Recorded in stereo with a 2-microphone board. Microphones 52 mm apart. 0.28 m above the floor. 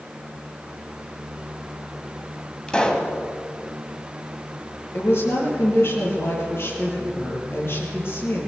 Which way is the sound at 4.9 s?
50° left (ahead or behind).